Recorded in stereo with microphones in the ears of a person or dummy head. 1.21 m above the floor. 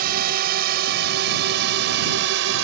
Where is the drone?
55° right (ahead or behind); by 2.6 s 70° right (ahead or behind).